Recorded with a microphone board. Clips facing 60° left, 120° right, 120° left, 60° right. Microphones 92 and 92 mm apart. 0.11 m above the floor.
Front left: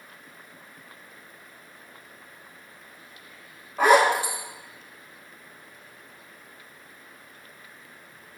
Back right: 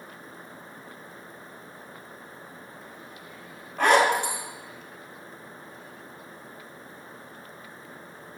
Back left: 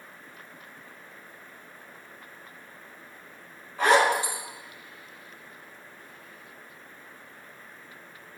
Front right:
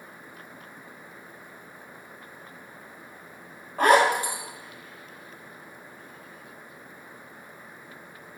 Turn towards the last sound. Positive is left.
turn(degrees=-20)